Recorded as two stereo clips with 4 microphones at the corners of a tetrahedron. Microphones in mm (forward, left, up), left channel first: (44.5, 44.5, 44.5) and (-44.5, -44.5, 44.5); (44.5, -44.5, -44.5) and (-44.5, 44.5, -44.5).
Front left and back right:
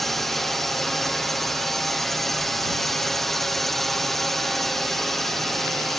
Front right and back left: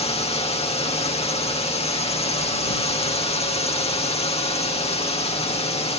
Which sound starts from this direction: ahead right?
A drone, at 0.0 s.